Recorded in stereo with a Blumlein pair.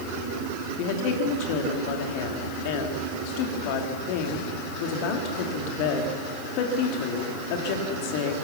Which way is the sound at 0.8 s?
45° left.